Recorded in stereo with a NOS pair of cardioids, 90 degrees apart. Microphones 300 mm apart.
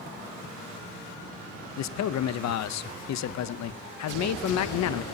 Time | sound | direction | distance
1.8 | a man speaking | 65° left | 0.9 m